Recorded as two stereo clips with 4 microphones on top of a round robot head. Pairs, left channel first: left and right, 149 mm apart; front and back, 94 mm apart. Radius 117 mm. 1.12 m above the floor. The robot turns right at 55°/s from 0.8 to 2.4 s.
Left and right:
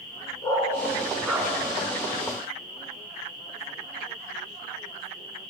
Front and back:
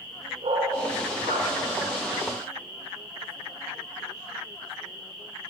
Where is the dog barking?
155° left, 4.5 m; by 1.5 s 165° right, 4.5 m.